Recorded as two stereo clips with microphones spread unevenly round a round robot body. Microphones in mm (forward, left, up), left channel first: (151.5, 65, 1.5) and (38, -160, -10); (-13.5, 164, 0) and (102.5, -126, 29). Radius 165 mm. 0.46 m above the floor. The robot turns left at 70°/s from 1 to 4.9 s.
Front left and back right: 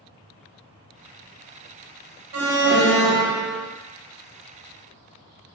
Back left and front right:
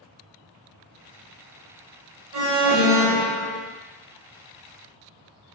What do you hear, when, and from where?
2.3 s an alarm: 110° right, 1.5 m; by 3.6 s 165° left, 1.5 m